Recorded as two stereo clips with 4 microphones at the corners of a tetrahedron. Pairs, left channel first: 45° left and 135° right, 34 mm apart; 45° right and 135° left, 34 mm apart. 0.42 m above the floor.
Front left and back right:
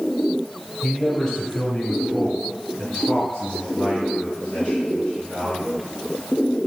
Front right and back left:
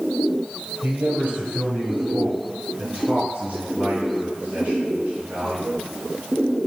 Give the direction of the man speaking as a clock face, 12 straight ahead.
8 o'clock.